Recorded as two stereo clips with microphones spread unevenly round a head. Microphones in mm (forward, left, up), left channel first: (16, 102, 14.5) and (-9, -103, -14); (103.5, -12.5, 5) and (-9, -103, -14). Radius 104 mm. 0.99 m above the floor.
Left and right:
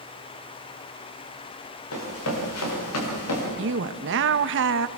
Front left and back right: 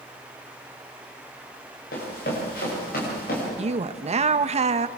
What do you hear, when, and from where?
1.9 s running footsteps: 75° left, 8.5 m; by 3.5 s 80° left, 8 m
3.6 s a woman speaking: 110° right, 0.9 m